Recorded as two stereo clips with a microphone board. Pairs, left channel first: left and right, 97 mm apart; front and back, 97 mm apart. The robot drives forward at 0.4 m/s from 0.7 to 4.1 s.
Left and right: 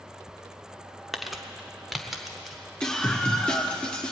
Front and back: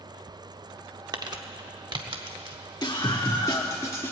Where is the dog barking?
No dog barking in this recording.